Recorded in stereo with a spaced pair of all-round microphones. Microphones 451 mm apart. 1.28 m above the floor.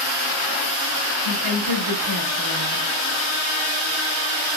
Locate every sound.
1.2 s a woman speaking: 60° right (ahead or behind), 2 m